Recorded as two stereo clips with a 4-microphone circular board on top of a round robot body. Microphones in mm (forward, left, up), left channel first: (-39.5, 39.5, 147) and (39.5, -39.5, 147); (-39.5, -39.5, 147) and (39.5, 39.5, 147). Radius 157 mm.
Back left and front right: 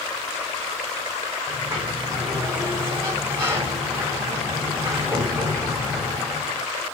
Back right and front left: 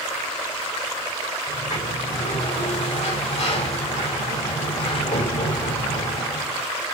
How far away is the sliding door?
About 6.5 m.